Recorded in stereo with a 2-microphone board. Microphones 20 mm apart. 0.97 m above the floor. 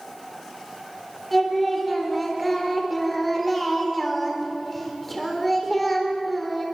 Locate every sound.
1.3 s singing: 5° left (ahead or behind), 4 m